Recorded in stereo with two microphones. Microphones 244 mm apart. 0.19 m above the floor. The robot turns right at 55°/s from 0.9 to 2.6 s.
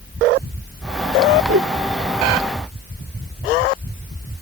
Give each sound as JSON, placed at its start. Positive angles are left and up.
{"t": 1.5, "sound": "a whoosh", "side_deg": -60}